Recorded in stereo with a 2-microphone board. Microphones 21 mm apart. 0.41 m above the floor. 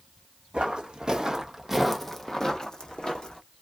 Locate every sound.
0.5 s footsteps: 55° right (ahead or behind), 1.2 m; by 3.4 s 50° left (ahead or behind), 1.4 m